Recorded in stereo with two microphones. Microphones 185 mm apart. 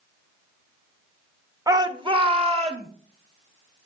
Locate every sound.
1.7 s a shout: 20° right (ahead or behind), 0.8 m; by 2.9 s 35° right (ahead or behind), 1.5 m